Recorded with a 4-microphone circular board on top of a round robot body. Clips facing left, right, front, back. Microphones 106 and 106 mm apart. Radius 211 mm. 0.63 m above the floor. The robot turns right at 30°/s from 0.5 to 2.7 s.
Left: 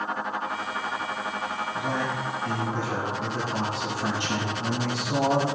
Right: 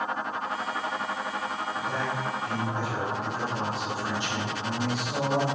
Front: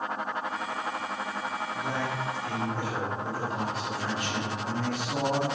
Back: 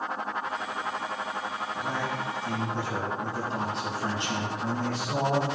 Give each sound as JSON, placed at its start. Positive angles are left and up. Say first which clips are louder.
{"t": 1.8, "sound": "a man speaking", "louder": "left 3 dB, back 1 dB", "azimuth_deg": 85, "distance_m": 5.5}